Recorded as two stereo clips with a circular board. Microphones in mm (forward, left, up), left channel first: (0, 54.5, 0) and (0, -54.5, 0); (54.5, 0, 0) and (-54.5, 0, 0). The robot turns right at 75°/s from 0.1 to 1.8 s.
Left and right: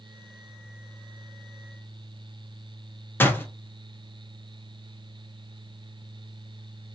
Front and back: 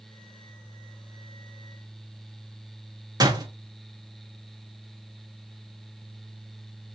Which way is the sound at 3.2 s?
150° left.